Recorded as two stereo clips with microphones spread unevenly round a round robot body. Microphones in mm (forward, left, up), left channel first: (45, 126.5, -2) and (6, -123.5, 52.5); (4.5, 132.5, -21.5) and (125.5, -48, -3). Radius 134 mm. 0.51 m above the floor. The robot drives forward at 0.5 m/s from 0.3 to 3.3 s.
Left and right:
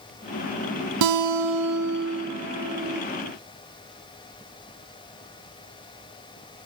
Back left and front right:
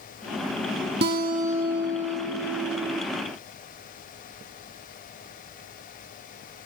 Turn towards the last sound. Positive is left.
turn(degrees=-150)